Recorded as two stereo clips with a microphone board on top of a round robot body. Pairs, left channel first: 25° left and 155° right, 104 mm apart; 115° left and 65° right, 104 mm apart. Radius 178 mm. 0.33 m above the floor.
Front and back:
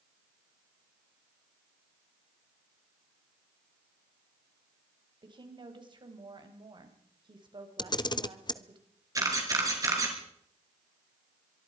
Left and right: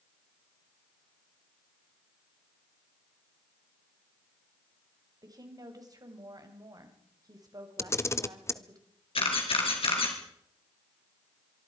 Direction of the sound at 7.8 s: 55° left.